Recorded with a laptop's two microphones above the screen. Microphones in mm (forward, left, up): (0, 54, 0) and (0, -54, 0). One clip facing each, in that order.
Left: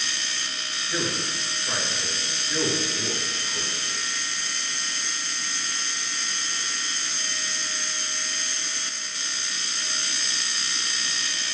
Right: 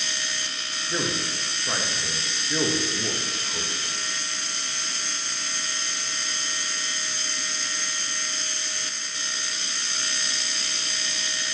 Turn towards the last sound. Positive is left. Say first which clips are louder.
# right 1 dB
turn(degrees=-20)  # may be behind; listen again after turning